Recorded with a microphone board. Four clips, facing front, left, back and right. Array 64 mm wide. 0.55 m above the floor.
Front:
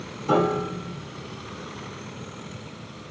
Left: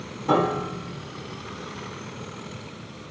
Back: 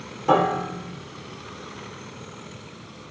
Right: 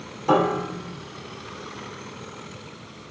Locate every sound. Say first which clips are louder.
0.3 s a piano: right 2 dB, back 2 dB; 155° right, 2 m